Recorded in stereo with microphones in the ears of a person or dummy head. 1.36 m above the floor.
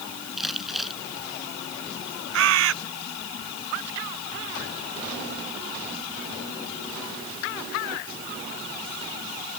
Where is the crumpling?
Centre (ahead or behind).